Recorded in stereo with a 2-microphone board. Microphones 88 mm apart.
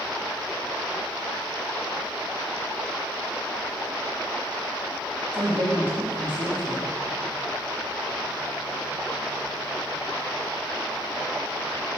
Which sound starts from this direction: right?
A man speaking, at 5.3 s.